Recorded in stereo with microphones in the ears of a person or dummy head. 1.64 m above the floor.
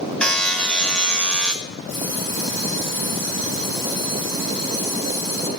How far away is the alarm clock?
About 9.5 m.